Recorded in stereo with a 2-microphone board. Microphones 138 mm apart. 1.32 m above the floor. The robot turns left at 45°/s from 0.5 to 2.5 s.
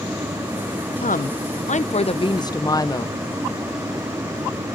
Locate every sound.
1.0 s a woman speaking: 95° left, 0.6 m; by 3.1 s 30° left, 0.6 m